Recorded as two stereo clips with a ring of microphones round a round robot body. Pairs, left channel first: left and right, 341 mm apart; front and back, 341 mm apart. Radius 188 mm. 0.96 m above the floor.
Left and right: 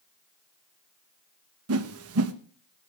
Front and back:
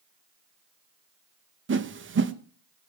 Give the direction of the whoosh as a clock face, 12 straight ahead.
4 o'clock.